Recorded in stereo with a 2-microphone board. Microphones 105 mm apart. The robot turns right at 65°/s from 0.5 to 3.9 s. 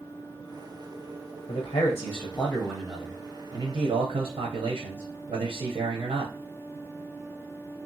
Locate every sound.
1.5 s a man speaking: 100° left, 0.6 m; by 6.3 s 100° right, 0.6 m